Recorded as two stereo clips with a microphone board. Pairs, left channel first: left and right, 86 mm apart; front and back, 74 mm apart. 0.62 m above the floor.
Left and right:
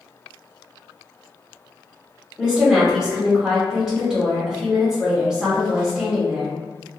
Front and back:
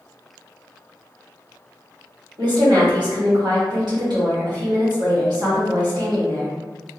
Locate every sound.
2.4 s a woman speaking: 170° right, 1.4 m